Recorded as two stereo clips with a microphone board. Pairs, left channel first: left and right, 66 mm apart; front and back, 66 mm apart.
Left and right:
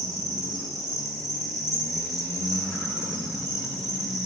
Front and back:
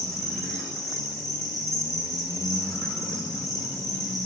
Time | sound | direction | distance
0.0 | an insect | 85° right | 6.5 m